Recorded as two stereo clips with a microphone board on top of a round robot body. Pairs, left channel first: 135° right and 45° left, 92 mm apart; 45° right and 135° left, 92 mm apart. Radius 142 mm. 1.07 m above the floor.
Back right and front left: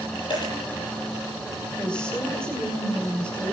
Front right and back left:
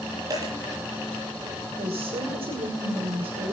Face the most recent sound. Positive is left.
turn(degrees=145)